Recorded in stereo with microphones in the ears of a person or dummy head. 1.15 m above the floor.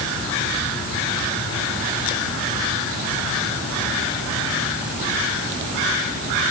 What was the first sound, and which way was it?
Only background noise.